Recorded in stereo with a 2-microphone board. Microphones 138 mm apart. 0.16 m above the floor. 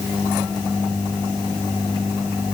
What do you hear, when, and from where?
Only background noise.